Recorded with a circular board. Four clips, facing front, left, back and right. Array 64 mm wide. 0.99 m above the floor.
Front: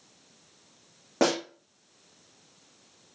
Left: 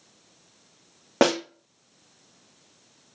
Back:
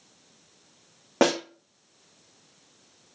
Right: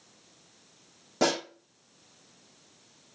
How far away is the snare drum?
About 2 m.